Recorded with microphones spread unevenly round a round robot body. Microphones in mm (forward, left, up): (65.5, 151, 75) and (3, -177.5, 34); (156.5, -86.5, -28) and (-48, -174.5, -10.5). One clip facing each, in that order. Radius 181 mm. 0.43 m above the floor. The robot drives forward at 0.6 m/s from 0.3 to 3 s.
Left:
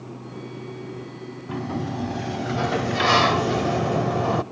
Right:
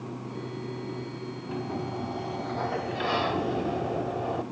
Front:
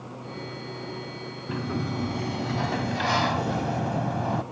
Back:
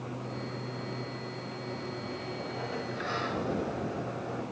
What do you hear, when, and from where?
1.5 s a sliding door: 25° left, 1.4 m; by 4.4 s 55° left, 0.7 m